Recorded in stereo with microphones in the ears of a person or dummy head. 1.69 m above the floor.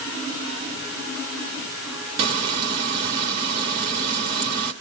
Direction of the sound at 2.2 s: 20° right (ahead or behind).